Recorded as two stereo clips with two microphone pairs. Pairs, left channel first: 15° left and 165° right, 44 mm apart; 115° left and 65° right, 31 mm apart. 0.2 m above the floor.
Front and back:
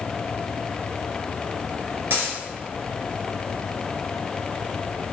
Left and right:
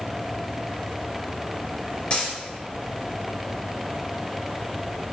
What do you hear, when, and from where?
2.1 s a dropped coin: 160° left, 1.6 m